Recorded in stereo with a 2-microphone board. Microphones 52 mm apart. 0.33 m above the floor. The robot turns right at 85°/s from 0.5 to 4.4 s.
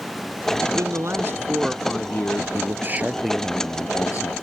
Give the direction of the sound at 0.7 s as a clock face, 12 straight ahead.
3 o'clock.